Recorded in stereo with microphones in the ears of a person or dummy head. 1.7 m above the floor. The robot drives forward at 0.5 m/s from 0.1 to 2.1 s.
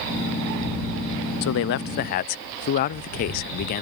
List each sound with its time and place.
1.4 s a man speaking: 60° left (ahead or behind); by 3.8 s 45° left (ahead or behind)